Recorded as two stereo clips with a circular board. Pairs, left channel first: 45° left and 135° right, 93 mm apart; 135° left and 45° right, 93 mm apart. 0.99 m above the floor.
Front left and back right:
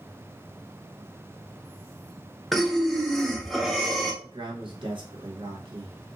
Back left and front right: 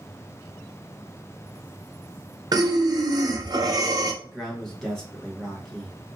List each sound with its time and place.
2.5 s breathing: 45° right, 0.5 m
4.2 s a man speaking: 140° right, 1.0 m